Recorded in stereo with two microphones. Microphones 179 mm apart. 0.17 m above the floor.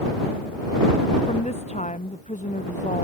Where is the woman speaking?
40° left (ahead or behind); by 3.0 s 45° left (ahead or behind).